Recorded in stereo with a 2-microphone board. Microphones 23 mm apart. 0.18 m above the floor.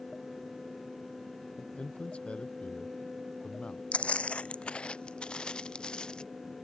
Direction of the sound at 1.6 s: 65° left (ahead or behind).